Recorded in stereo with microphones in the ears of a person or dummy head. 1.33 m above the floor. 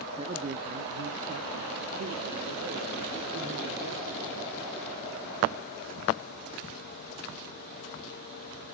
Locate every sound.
0.2 s a man speaking: 25° right (ahead or behind), 0.9 m; by 4.5 s 70° right (ahead or behind), 4 m